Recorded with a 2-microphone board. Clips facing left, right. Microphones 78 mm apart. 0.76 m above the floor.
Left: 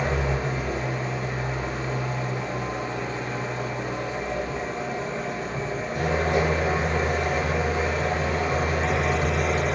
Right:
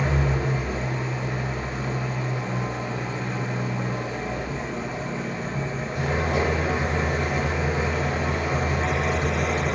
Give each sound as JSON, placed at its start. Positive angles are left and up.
{"t": 0.0, "sound": "an engine running", "side_deg": 75, "distance_m": 1.4}